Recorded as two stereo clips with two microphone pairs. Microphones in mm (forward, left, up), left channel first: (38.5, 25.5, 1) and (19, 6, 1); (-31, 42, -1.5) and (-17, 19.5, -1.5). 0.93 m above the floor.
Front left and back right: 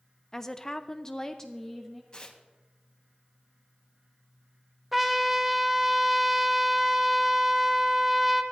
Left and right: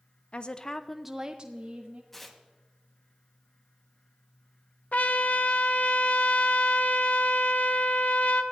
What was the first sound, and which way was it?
A woman speaking, 115° left.